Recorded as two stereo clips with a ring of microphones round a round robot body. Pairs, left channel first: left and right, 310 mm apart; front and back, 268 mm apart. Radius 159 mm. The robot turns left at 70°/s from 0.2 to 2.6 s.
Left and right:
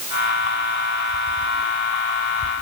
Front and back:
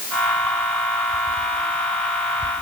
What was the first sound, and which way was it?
Only background noise.